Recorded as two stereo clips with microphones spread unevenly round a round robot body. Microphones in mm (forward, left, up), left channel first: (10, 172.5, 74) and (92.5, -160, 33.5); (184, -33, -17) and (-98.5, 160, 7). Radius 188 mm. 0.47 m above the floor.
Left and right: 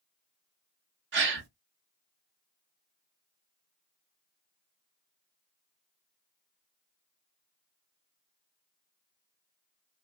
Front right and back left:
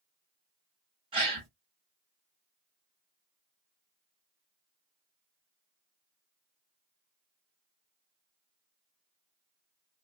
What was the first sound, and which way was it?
A gasp, 135° right.